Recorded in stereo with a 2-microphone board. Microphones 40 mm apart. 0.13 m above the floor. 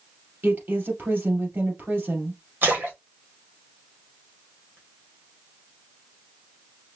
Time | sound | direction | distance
0.4 | a woman speaking | 55° right (ahead or behind) | 3 m
2.6 | a splash | 55° right (ahead or behind) | 2.5 m